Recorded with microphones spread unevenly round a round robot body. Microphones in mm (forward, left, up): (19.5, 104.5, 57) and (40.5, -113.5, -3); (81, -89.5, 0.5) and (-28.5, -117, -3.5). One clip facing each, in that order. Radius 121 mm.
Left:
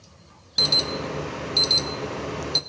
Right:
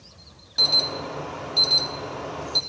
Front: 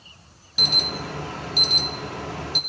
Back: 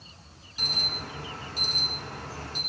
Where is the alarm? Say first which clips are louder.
Left 3 dB, front 8 dB; 35° left, 0.5 m.